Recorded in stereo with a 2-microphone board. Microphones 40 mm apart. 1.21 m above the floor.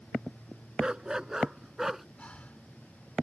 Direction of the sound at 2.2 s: 35° left (ahead or behind).